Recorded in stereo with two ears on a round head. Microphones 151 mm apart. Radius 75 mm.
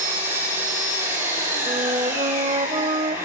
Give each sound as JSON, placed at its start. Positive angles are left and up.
{"t": 0.0, "sound": "an engine running", "side_deg": -15, "distance_m": 7.0}
{"t": 1.7, "sound": "a flute", "side_deg": -30, "distance_m": 0.7}